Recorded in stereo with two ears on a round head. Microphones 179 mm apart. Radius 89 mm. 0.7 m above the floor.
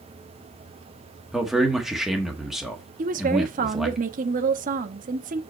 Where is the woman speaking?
40° right (ahead or behind), 0.9 m.